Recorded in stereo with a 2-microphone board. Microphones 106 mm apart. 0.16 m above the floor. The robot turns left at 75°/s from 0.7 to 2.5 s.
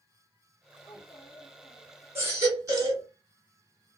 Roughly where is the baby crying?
Right.